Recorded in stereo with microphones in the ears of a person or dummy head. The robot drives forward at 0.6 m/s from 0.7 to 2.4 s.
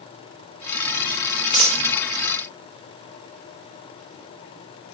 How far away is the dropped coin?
About 1.9 m.